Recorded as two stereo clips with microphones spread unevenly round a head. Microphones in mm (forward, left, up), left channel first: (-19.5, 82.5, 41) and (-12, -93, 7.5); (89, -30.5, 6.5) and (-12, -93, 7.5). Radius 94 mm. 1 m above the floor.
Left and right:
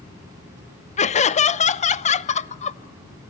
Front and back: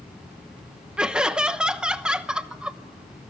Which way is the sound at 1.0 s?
130° left.